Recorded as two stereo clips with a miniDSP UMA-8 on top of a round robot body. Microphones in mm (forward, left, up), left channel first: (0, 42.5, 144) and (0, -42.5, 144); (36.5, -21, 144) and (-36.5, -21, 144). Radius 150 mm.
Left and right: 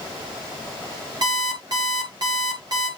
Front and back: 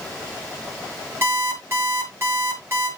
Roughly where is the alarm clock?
Behind right.